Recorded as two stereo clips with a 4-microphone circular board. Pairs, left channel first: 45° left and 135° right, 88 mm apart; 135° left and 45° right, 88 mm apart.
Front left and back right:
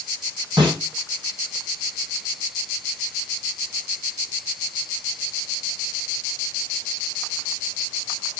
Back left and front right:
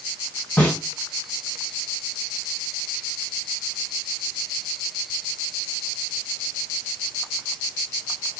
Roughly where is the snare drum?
Behind right.